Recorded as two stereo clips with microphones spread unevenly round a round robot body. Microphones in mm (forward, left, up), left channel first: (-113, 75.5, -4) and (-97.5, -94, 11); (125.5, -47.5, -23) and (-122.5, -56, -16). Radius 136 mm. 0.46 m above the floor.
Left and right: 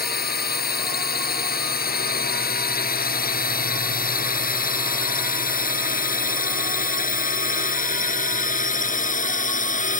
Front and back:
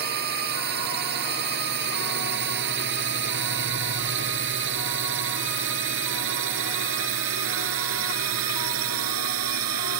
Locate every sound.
0.0 s a drone: 125° left; by 10.0 s 140° left